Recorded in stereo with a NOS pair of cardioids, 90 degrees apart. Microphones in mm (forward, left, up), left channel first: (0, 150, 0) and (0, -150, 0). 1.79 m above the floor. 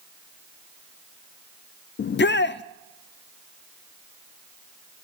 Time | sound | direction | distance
2.0 | a shout | 35° left | 0.7 m